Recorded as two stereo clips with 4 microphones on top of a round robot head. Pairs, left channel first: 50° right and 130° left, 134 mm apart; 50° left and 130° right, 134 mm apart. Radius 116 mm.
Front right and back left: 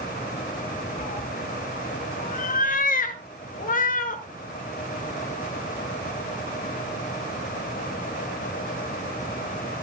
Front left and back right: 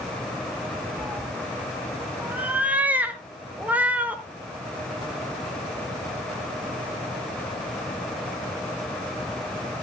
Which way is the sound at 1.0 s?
50° right.